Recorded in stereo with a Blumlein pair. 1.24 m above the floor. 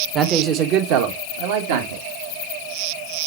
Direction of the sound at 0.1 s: 25° right.